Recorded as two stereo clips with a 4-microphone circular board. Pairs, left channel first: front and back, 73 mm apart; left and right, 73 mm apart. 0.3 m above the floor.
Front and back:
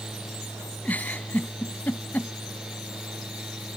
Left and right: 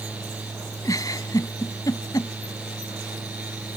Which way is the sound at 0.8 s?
65° left.